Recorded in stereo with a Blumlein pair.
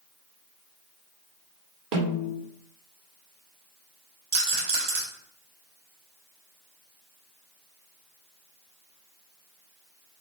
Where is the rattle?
50° right, 3.5 m.